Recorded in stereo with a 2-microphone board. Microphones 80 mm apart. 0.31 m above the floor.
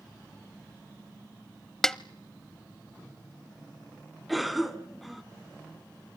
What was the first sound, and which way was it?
A snare drum, 5° left (ahead or behind).